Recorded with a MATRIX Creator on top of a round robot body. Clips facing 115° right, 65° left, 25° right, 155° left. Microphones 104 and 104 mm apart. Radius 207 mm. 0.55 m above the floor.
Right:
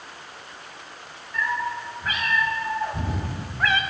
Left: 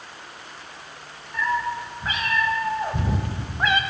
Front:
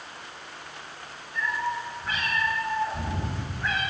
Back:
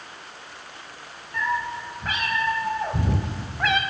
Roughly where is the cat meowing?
Behind left.